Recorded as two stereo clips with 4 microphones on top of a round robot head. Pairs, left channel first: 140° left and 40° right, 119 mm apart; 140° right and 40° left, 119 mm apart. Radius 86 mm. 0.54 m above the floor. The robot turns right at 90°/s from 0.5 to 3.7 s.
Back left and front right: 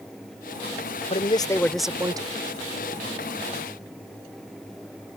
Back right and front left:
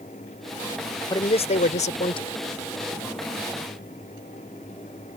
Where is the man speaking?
165° left; by 2.4 s 80° right.